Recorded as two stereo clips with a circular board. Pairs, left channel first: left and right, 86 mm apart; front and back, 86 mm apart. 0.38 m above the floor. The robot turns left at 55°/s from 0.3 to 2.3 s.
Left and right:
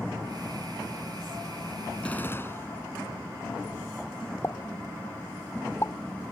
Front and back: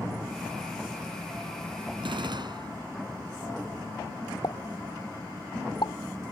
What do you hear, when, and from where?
2.0 s a gunshot: 170° left; by 2.8 s 155° left
4.4 s a pop: 30° left